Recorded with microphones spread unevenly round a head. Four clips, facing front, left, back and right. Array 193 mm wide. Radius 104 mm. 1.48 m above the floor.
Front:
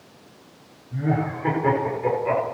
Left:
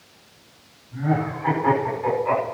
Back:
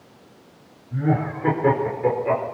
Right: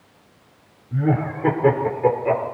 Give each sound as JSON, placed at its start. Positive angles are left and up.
{"t": 0.9, "sound": "laughter", "azimuth_deg": -90, "distance_m": 5.5}